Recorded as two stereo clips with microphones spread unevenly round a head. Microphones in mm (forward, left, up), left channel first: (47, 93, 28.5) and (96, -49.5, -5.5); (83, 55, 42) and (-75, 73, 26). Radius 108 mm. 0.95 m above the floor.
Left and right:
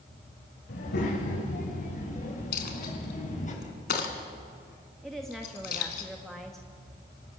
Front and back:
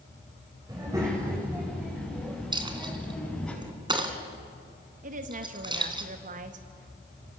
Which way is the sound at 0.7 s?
105° left.